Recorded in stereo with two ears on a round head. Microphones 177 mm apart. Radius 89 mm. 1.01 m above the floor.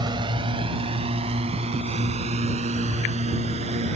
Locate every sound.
0.0 s a drone: 20° right (ahead or behind); by 4.0 s 35° right (ahead or behind)